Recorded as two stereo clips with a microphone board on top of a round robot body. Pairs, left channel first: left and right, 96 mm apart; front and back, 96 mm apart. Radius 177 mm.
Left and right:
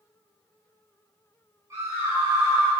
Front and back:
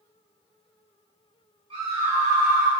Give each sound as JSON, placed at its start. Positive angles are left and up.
{"t": 1.7, "sound": "a scream", "azimuth_deg": -150, "distance_m": 2.0}